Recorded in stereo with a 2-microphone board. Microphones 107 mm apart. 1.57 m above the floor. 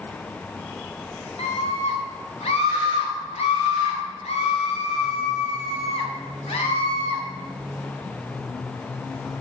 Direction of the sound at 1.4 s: 70° left (ahead or behind).